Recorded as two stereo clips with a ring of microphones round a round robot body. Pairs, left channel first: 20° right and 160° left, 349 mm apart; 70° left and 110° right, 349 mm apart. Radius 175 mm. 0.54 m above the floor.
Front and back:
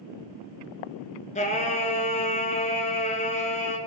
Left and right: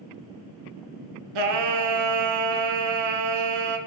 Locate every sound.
1.4 s singing: 95° right, 1.3 m